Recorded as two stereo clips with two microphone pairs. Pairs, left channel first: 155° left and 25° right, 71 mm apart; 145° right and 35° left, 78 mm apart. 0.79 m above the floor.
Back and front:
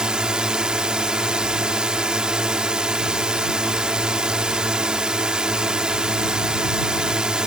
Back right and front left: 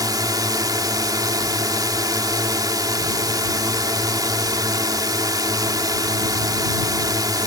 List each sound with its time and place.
0.0 s a drone: 50° left